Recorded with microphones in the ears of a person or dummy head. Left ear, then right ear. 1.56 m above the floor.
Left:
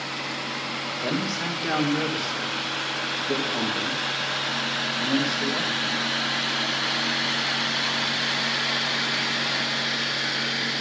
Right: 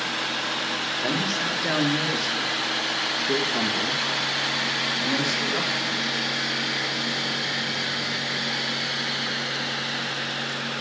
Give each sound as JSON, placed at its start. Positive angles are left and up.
{"t": 1.0, "sound": "a man speaking", "side_deg": -15, "distance_m": 2.0}